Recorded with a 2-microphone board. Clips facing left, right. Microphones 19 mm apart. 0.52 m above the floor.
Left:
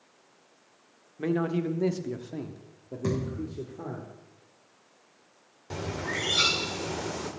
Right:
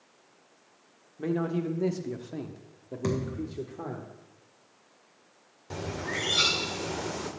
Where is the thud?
35° right (ahead or behind), 3.5 m.